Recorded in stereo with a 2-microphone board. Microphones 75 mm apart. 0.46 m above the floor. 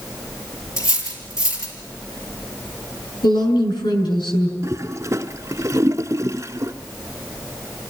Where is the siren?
No siren in this recording.